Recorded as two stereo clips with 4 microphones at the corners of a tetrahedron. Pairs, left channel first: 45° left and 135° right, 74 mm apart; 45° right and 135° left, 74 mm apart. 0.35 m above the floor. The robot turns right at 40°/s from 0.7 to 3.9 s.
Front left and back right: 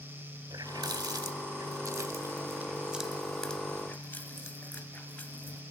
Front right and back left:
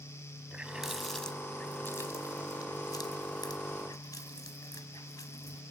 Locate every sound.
0.5 s a running tap: 145° right, 1.5 m; by 5.6 s 20° right, 1.5 m